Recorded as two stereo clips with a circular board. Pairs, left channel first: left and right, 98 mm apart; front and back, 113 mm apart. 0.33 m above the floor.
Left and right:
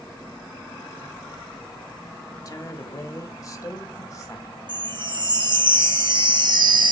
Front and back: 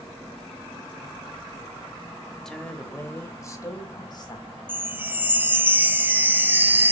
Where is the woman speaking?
80° left, 1.1 m; by 4.5 s 35° left, 1.8 m.